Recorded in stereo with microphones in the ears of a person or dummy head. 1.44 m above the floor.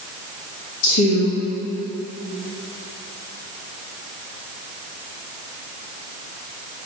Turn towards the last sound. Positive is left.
turn(degrees=75)  # may be behind; listen again after turning